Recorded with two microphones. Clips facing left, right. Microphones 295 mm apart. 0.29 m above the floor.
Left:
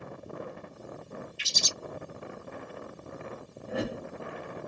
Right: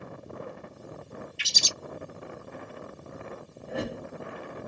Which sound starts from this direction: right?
A bird, at 1.4 s.